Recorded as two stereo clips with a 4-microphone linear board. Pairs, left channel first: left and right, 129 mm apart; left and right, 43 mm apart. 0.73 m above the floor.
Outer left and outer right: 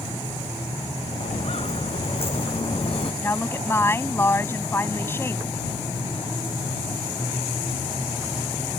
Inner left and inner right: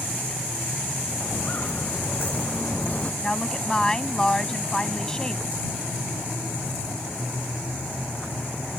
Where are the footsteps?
50° left (ahead or behind); by 3.1 s 40° left (ahead or behind).